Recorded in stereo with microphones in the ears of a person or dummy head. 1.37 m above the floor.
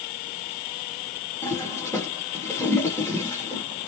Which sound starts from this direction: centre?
A toilet flushing, at 1.4 s.